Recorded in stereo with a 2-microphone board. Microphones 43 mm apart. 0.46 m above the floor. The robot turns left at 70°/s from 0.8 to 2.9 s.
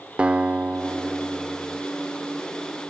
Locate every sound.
0.2 s a guitar: 30° right (ahead or behind), 0.7 m; by 1.8 s 10° right (ahead or behind), 0.7 m